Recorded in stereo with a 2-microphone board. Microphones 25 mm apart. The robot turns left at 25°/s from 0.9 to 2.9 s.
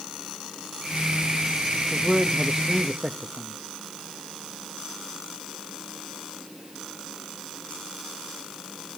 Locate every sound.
1.9 s a man speaking: 25° right (ahead or behind), 1.0 m; by 3.6 s 45° right (ahead or behind), 1.0 m